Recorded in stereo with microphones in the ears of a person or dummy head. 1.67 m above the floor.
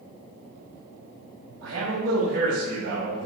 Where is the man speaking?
85° right, 3.5 m; by 3.3 s 75° right (ahead or behind), 5 m.